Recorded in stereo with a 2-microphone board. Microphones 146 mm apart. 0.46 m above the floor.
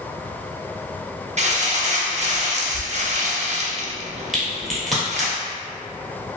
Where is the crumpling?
50° right (ahead or behind), 0.6 m.